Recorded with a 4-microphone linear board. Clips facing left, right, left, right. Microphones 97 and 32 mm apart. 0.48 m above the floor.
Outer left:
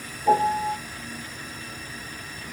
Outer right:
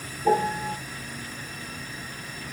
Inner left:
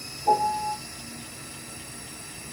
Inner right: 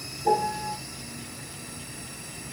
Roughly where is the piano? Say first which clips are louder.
Outer left 3 dB, inner left 2 dB; right.